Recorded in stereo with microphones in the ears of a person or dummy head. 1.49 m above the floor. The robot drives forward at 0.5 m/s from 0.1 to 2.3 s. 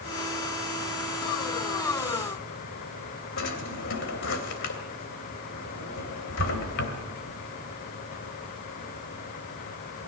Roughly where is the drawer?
Left.